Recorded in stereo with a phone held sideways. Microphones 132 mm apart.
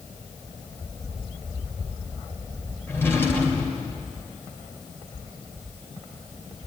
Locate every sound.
2.9 s a drawer: 15° left (ahead or behind), 2.5 m